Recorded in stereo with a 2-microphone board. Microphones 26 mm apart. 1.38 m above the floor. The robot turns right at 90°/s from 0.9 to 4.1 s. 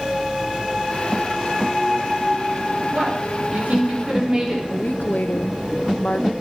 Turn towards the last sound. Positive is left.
turn(degrees=70)  # may be behind; listen again after turning